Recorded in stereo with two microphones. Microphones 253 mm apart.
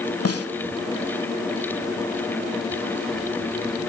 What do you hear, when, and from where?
0.2 s a snare drum: 70° left (ahead or behind), 0.8 m